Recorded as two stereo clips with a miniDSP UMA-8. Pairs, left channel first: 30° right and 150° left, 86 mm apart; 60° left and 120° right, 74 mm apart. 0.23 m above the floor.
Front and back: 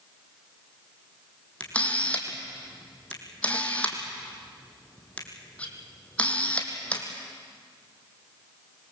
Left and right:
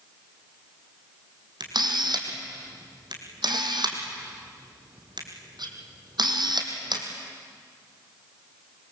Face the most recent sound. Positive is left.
turn(degrees=-105)